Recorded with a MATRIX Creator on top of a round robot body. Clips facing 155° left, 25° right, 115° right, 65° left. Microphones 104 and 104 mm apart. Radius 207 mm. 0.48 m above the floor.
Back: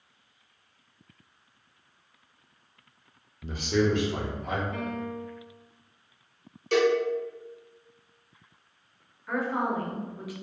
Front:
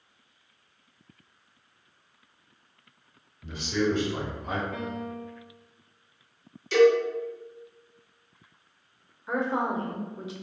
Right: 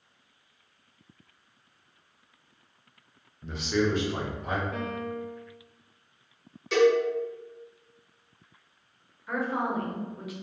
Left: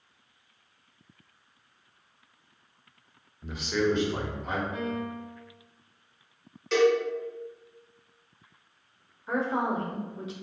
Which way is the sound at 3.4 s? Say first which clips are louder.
Back 2 dB, even; 145° left.